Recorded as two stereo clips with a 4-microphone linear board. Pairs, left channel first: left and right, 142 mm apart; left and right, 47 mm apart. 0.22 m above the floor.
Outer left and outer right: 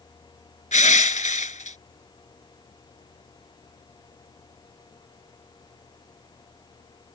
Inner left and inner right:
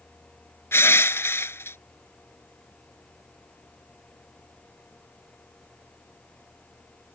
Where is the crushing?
60° left (ahead or behind).